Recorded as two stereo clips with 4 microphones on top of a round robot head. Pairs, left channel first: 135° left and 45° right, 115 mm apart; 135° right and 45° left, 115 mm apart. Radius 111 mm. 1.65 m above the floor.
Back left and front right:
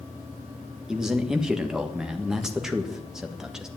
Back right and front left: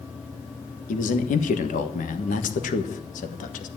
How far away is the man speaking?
About 1.6 m.